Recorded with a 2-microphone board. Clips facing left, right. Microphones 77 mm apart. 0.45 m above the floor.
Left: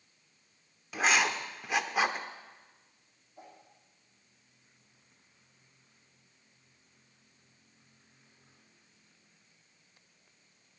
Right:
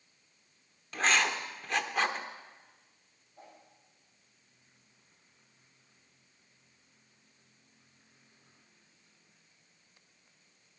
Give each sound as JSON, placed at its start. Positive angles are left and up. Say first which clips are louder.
{"t": 0.9, "sound": "writing", "louder": "left 1 dB", "side_deg": 5, "distance_m": 0.8}
{"t": 3.4, "sound": "a whoosh", "louder": "left 2 dB", "side_deg": 10, "distance_m": 5.5}